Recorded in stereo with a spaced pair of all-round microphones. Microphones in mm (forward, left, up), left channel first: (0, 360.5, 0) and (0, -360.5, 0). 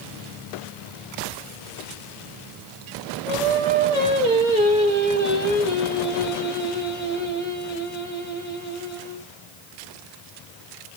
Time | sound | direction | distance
3.3 | singing | 70° left (ahead or behind) | 1.9 m